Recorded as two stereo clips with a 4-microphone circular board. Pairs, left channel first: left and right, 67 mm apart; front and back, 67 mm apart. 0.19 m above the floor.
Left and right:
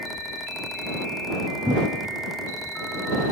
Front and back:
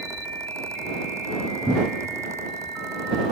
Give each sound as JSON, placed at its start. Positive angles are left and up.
{"t": 1.7, "sound": "a cupboard door", "azimuth_deg": -115}